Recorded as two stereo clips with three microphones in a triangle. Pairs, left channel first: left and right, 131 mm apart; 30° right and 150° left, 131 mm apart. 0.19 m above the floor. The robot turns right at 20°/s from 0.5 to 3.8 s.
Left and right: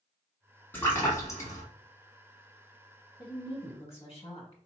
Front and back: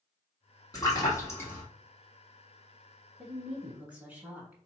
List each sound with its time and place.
0.7 s a splash: 20° left, 1.2 m; by 1.6 s 40° left, 1.2 m
3.2 s a woman speaking: 60° left, 1.5 m; by 4.6 s 75° left, 1.5 m